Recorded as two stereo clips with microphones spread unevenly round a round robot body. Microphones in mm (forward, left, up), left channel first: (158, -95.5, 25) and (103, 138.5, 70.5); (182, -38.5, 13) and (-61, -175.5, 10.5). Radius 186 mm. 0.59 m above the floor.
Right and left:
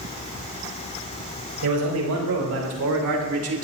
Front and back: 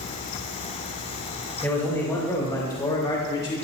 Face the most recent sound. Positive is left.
turn(degrees=100)